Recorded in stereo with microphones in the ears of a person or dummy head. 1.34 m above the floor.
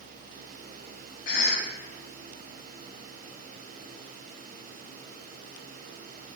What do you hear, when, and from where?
1.2 s a cough: 65° left (ahead or behind), 3.5 m